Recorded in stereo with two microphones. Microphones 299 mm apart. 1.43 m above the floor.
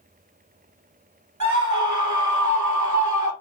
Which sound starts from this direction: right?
A scream, at 1.4 s.